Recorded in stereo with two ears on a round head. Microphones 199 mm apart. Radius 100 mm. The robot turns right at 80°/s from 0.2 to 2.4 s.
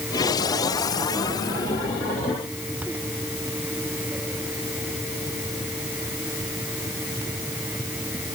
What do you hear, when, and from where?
Only background noise.